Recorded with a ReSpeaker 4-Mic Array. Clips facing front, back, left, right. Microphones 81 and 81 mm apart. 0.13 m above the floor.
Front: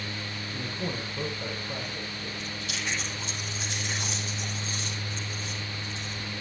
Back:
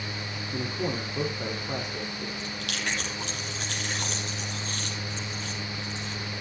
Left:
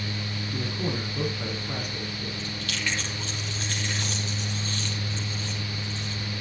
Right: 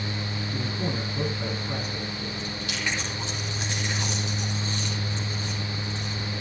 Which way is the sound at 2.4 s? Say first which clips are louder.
Back 2 dB, right 1 dB; 160° right.